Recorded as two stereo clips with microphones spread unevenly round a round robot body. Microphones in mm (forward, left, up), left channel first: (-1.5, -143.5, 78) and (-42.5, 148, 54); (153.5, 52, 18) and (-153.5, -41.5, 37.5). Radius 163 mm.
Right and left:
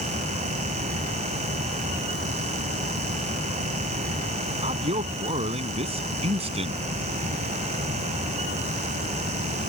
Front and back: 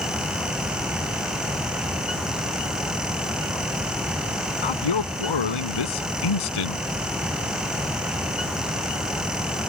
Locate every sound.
4.6 s a man speaking: 25° left